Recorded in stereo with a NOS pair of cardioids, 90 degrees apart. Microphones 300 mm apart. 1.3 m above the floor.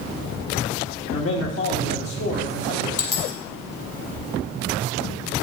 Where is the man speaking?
45° left, 1.9 m.